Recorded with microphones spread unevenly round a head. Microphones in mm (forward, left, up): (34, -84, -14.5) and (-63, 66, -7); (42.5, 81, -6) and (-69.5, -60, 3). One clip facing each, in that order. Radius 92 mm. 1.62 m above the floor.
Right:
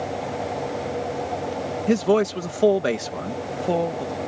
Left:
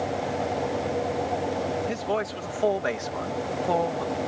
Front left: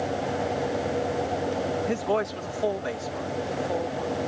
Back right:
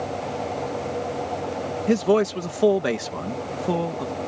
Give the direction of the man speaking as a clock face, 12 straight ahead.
3 o'clock.